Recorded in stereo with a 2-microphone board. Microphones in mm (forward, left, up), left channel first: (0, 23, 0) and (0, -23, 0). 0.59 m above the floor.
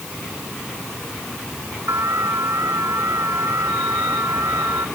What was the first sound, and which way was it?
An alarm, 75° right (ahead or behind).